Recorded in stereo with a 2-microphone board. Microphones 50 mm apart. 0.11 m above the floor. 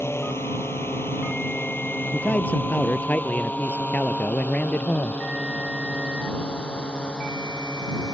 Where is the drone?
60° left (ahead or behind); by 8.2 s 15° left (ahead or behind).